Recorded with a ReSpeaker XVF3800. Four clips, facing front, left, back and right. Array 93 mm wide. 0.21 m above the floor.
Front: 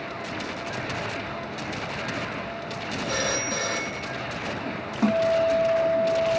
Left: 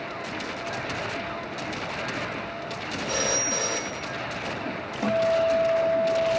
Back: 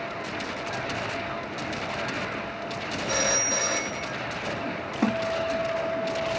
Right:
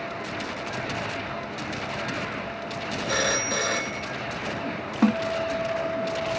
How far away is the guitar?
About 2 m.